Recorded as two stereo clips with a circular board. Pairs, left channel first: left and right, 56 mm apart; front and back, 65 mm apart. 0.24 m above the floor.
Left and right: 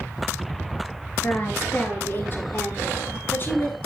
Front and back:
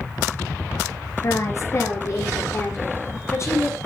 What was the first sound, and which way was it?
A woman speaking, 40° left.